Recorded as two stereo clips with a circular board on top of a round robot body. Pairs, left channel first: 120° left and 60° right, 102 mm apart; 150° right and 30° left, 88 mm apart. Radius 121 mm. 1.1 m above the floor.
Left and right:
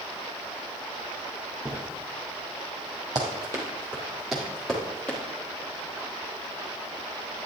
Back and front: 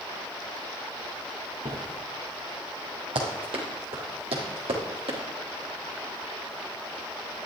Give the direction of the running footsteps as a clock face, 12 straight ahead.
12 o'clock.